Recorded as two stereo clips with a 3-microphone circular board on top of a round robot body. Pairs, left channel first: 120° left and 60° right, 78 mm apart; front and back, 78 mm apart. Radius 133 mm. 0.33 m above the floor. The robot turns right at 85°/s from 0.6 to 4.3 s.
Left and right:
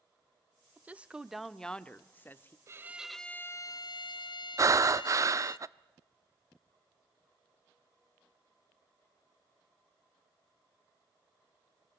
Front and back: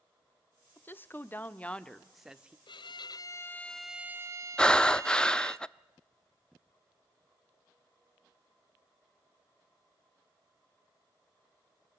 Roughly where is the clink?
I don't hear a clink.